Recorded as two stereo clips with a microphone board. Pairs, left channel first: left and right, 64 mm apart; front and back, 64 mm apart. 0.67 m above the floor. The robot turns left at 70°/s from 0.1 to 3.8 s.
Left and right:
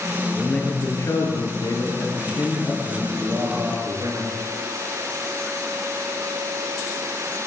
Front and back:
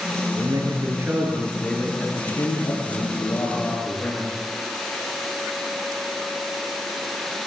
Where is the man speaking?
170° left, 9.5 m; by 4.4 s 70° right, 9.5 m.